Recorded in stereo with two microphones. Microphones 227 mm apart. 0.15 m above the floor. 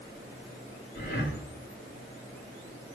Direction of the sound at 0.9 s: 45° left (ahead or behind).